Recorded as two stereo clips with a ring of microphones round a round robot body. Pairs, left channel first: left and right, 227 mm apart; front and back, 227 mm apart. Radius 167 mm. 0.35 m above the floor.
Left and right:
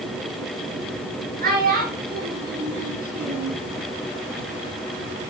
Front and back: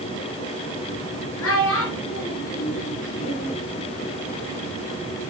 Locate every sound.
1.4 s a child speaking: 40° right, 4 m; by 3.6 s 45° right, 2 m